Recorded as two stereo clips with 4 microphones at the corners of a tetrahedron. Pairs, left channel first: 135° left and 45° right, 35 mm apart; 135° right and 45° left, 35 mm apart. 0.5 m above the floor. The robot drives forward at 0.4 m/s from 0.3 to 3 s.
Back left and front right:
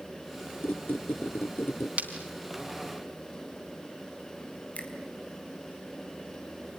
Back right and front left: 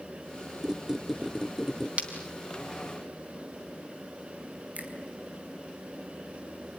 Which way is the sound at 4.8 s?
90° left.